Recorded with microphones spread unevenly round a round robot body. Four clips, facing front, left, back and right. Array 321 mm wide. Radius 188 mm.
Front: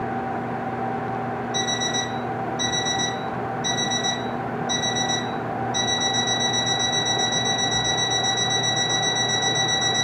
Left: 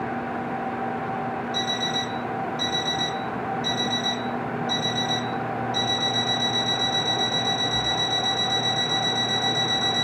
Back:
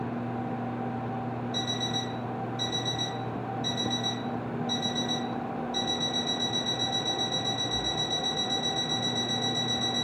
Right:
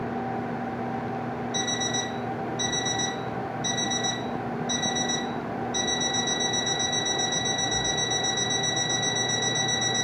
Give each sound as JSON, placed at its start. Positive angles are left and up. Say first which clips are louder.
{"t": 1.5, "sound": "an alarm clock", "louder": "left 2 dB, front 7 dB", "azimuth_deg": -170, "distance_m": 1.4}